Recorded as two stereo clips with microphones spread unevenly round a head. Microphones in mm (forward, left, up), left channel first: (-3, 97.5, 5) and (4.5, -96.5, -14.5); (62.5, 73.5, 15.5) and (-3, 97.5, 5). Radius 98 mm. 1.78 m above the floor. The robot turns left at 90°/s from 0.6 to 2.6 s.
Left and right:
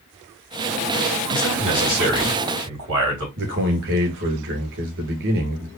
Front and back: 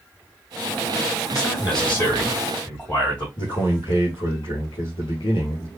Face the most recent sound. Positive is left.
turn(degrees=-60)